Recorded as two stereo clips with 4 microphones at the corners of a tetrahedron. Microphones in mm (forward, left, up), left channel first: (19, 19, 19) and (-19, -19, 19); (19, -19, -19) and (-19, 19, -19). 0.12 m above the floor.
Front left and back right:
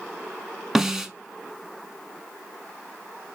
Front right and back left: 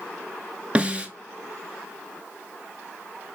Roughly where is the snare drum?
Behind left.